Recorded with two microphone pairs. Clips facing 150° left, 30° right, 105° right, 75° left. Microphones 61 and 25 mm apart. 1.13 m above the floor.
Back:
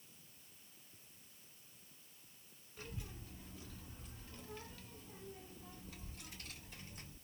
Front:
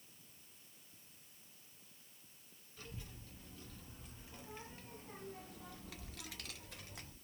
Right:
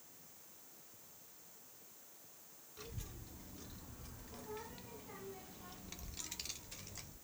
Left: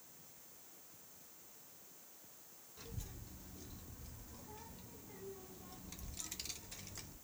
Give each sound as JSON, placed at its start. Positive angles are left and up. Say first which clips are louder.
{"t": 2.8, "sound": "a child speaking", "louder": "back 2 dB, right 1 dB", "azimuth_deg": -145, "distance_m": 1.4}